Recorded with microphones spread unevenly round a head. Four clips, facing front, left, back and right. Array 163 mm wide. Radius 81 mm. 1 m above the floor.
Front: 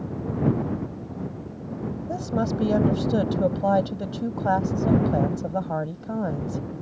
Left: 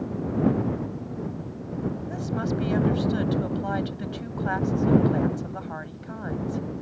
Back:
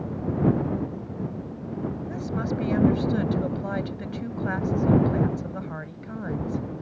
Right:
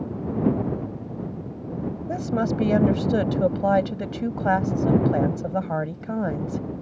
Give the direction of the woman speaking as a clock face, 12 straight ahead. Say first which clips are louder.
Right 7 dB, front 6 dB; 2 o'clock.